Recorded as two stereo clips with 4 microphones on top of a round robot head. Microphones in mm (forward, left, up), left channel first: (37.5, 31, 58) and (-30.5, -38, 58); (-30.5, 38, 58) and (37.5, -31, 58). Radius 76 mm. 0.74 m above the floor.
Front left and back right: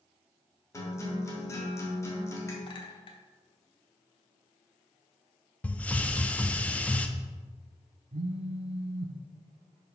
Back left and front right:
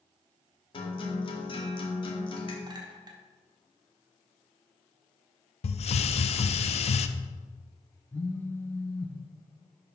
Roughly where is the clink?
Ahead.